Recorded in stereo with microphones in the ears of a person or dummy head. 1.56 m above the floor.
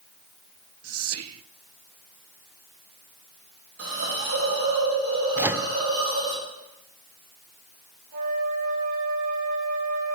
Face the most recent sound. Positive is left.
turn(degrees=-45)  # may be behind; listen again after turning